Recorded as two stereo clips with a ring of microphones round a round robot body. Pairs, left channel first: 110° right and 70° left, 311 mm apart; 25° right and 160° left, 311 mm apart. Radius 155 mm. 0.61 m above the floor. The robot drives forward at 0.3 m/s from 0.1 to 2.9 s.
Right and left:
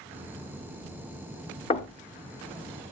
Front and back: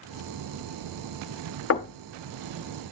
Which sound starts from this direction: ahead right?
Knocking, at 1.7 s.